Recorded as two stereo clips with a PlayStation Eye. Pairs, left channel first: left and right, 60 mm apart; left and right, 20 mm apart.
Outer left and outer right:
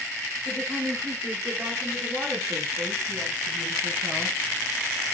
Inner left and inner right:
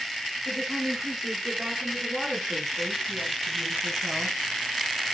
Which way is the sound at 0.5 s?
35° right (ahead or behind).